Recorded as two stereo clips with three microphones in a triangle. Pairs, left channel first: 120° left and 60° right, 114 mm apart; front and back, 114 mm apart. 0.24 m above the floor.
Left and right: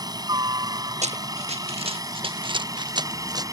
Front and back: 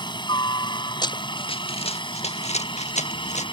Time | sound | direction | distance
0.0 | a helicopter | 25° right | ?
1.0 | running footsteps | 50° right | ?